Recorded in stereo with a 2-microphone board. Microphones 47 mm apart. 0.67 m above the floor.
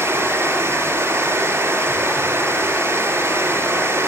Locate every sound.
0.0 s running water: 60° right (ahead or behind), 5.5 m